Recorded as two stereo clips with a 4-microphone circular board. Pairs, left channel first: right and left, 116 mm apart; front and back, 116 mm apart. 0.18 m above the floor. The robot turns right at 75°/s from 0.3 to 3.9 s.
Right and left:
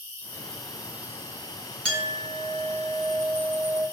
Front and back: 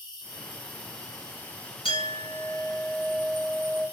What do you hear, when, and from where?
0.0 s an insect: 25° right, 1.2 m; by 3.9 s 115° right, 1.2 m
1.9 s a clink: 5° right, 1.6 m; by 3.8 s 145° left, 1.6 m